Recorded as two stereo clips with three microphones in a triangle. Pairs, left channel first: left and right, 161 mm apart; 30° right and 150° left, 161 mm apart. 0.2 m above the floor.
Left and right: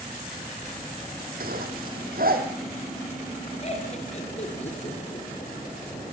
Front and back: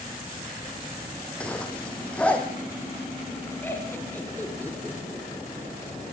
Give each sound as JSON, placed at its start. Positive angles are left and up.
{"t": 1.4, "sound": "a zipper", "azimuth_deg": -115, "distance_m": 3.5}
{"t": 3.6, "sound": "laughter", "azimuth_deg": 45, "distance_m": 4.0}